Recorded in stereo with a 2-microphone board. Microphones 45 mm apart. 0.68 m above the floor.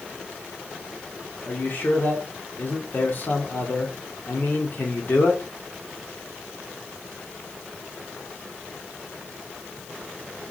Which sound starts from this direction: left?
A man speaking, at 1.5 s.